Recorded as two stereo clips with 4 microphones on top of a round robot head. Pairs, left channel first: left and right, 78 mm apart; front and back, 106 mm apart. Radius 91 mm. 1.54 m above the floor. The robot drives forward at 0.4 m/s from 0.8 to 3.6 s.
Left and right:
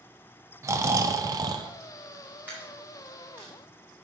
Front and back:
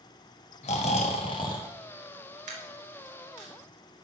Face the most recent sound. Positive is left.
turn(degrees=-170)